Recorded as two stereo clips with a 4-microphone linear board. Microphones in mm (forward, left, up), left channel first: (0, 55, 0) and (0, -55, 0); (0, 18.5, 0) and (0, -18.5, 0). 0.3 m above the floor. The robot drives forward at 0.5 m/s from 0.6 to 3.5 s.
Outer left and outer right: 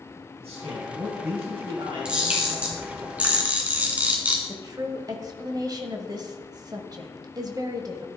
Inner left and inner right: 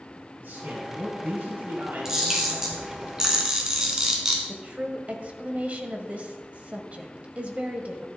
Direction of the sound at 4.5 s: 35° right (ahead or behind).